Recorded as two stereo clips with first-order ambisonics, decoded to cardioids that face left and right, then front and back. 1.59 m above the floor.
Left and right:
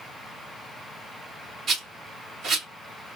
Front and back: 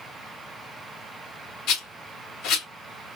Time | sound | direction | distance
1.7 | a rattle | 25° right | 2 m